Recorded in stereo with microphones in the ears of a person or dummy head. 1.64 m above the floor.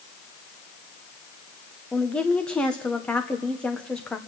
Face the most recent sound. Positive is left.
turn(degrees=5)  # may be behind; listen again after turning